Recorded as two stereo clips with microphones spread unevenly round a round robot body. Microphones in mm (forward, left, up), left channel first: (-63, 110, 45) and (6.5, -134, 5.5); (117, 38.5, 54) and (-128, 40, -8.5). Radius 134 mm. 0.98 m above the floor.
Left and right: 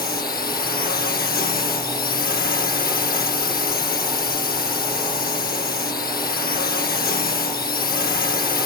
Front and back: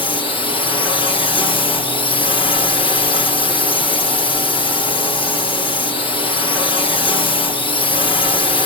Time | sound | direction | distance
0.0 | a drone | 75° left | ?